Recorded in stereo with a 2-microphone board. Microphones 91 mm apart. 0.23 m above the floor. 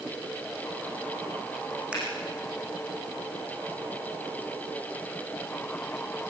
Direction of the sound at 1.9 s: 15° right (ahead or behind).